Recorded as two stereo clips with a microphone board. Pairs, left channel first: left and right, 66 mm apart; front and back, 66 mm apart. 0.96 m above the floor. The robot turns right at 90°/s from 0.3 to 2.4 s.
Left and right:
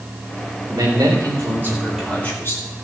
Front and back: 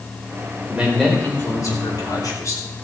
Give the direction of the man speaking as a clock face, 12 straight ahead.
4 o'clock.